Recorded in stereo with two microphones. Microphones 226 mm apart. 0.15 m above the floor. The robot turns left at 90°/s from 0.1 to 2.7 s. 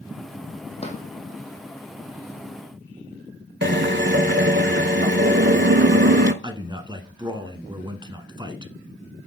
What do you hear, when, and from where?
0.8 s a drawer: 25° left (ahead or behind), 1.6 m; by 1.0 s 45° left (ahead or behind), 1.6 m
3.6 s a drill: 50° right (ahead or behind), 0.6 m
6.4 s a man speaking: 20° right (ahead or behind), 1.3 m